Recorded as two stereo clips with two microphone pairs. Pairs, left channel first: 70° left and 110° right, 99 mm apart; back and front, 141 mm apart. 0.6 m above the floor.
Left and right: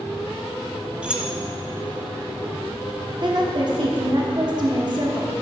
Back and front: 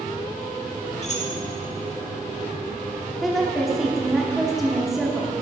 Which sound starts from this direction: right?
A woman speaking, at 3.2 s.